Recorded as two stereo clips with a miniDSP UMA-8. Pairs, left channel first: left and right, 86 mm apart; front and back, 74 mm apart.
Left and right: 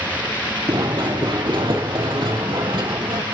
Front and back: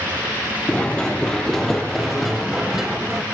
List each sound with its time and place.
0.7 s running footsteps: 70° right, 2.5 m; by 3.2 s 100° right, 4 m